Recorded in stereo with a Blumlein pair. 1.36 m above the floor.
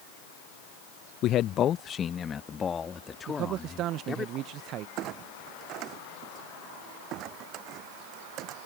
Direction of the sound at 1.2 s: 35° left.